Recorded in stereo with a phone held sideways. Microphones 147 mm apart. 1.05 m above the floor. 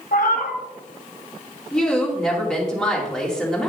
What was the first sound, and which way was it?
A cat meowing, 65° left (ahead or behind).